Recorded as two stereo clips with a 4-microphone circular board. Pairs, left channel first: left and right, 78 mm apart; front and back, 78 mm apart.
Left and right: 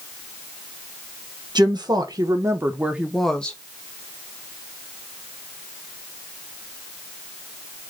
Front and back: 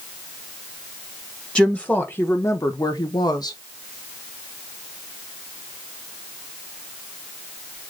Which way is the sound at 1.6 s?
75° right.